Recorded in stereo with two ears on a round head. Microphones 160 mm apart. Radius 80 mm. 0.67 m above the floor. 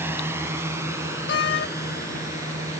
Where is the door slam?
65° left (ahead or behind).